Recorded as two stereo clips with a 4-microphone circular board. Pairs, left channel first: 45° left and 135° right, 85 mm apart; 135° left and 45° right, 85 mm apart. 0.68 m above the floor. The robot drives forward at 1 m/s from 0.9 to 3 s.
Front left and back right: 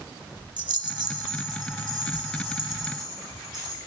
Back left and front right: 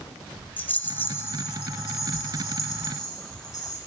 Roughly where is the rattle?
Behind.